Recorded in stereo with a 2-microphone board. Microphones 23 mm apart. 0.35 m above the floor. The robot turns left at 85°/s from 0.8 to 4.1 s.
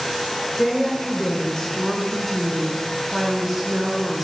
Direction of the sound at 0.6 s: 15° left (ahead or behind).